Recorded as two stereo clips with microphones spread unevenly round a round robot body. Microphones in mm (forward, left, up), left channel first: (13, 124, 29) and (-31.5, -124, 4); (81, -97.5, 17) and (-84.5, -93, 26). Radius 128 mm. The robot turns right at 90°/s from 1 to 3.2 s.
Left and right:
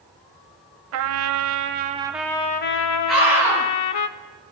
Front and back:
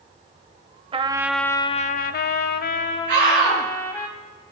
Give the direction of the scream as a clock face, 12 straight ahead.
6 o'clock.